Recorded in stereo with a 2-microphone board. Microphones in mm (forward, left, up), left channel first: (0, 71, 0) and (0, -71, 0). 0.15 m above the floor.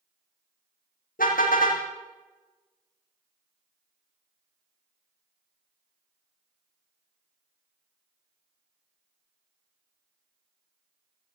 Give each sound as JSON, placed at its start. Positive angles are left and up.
{"t": 1.2, "sound": "a car horn", "side_deg": 80, "distance_m": 3.0}